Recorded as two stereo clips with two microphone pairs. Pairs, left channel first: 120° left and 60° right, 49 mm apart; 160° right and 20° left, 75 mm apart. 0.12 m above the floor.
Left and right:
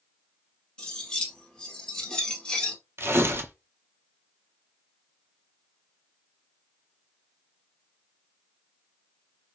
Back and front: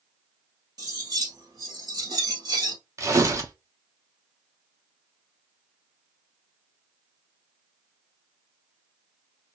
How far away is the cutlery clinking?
About 1.7 m.